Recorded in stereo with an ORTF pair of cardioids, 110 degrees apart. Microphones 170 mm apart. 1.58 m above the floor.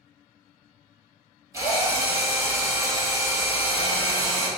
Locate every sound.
1.5 s a drill: 15° right, 2 m